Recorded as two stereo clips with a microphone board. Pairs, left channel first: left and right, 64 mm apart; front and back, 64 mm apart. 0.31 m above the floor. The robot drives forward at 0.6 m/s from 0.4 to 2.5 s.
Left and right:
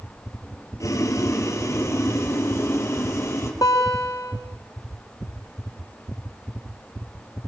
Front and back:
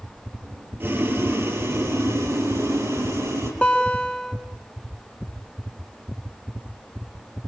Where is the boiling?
125° left, 3 m; by 3.5 s 140° left, 3.5 m.